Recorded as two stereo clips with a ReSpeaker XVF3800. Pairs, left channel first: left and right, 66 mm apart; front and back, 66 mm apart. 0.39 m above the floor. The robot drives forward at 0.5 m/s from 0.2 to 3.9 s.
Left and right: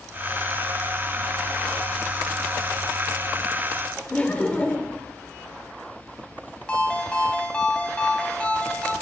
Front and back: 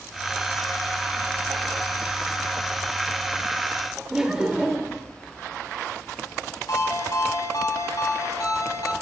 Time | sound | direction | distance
4.1 | laughter | 115° left | 1.1 m
6.7 | a ringtone | 20° left | 2 m